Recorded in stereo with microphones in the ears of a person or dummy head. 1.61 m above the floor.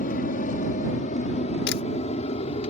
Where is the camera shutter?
65° left (ahead or behind).